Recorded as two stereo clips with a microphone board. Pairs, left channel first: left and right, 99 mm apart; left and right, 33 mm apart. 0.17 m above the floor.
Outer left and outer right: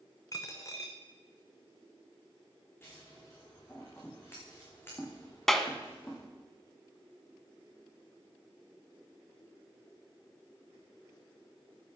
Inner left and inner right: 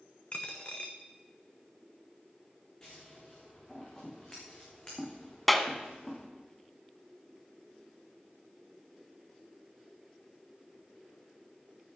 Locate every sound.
0.3 s a dropped coin: 35° left (ahead or behind), 1.4 m
2.8 s scissors: 25° left (ahead or behind), 4.5 m
5.5 s a clap: 5° left (ahead or behind), 0.9 m